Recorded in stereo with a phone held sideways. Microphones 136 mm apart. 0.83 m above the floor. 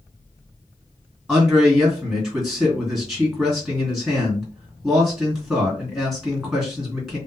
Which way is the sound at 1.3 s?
Centre (ahead or behind).